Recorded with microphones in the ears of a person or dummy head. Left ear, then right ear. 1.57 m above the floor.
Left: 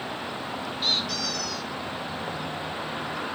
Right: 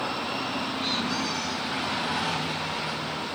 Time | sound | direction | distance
0.8 | a squeak | 25° left (ahead or behind) | 5.5 m